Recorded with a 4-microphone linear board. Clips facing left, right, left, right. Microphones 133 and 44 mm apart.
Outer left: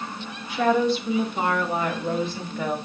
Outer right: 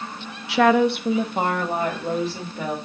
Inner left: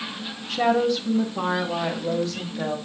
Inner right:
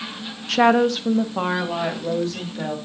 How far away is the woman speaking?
About 0.6 m.